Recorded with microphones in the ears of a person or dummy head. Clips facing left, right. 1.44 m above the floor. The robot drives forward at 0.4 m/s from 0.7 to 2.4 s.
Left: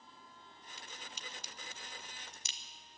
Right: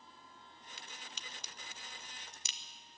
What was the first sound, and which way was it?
A crack, 55° right (ahead or behind).